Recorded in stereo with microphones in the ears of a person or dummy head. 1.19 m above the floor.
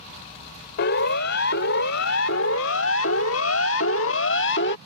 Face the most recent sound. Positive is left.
turn(degrees=65)  # may be behind; listen again after turning